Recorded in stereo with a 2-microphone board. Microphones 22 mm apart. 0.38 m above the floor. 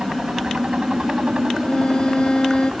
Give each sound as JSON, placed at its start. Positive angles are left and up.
{"t": 0.0, "sound": "a helicopter", "side_deg": -60}
{"t": 1.6, "sound": "a violin", "side_deg": 40}